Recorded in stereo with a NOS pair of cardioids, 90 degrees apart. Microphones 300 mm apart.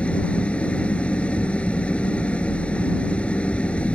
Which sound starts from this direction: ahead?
An engine running, at 0.0 s.